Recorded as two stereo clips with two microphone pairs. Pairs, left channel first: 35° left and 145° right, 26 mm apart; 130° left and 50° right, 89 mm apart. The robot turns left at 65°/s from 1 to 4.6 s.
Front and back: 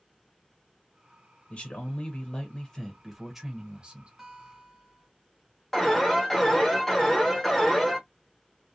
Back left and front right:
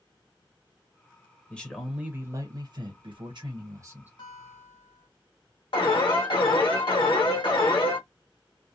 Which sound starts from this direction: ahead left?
A man speaking, at 1.5 s.